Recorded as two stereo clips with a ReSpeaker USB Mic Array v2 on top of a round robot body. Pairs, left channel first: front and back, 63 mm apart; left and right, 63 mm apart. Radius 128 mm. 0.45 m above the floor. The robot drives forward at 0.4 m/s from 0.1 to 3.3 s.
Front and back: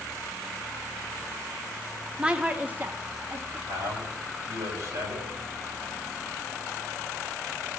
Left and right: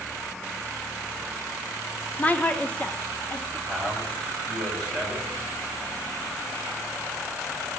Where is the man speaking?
170° right, 4.5 m.